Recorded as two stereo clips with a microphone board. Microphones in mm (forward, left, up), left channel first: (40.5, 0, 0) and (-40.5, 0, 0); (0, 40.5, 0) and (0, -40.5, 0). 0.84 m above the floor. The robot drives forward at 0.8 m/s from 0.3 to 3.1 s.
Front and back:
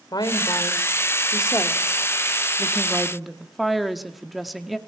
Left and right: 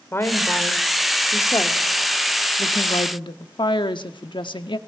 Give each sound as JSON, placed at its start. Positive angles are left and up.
{"t": 0.1, "sound": "a woman speaking", "azimuth_deg": 30, "distance_m": 2.5}